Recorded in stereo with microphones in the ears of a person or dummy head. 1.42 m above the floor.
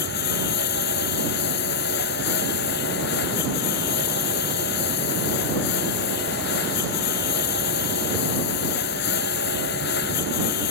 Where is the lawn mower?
55° left (ahead or behind).